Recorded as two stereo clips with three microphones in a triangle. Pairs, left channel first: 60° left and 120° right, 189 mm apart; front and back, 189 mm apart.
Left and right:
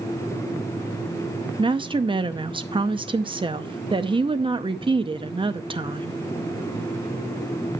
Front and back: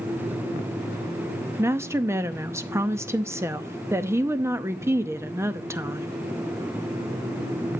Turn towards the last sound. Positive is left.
turn(degrees=-125)